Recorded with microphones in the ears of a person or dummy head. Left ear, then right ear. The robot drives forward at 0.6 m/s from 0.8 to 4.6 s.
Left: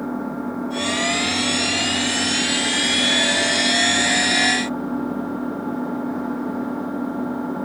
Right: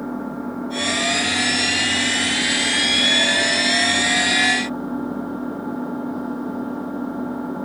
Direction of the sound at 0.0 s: Centre (ahead or behind).